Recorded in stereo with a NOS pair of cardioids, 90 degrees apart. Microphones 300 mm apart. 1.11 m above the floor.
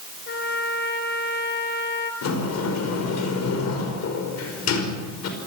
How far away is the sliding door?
About 5 m.